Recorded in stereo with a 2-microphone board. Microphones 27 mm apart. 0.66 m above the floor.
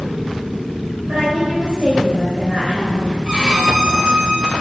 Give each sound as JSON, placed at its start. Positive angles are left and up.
{"t": 1.1, "sound": "a woman speaking", "side_deg": -70, "distance_m": 3.0}
{"t": 3.2, "sound": "a violin", "side_deg": -35, "distance_m": 1.4}